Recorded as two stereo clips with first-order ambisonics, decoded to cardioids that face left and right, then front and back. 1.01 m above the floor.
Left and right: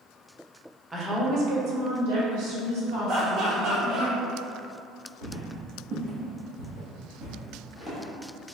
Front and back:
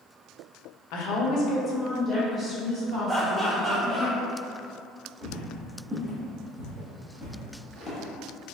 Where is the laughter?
100° right, 0.9 m.